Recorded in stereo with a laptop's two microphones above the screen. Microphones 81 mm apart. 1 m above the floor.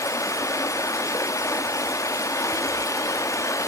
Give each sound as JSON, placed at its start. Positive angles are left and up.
{"t": 0.0, "sound": "running water", "side_deg": 40, "distance_m": 0.8}